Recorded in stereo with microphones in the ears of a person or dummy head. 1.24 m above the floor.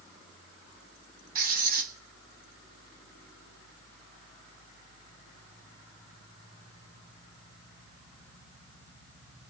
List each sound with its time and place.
1.4 s writing: 50° right (ahead or behind), 1.3 m